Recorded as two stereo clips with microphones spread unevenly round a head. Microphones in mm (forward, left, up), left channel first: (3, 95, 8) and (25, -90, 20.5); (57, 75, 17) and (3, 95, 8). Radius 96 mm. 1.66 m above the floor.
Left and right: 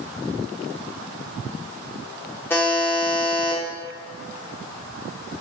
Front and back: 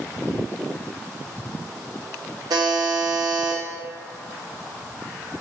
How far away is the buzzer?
About 0.7 m.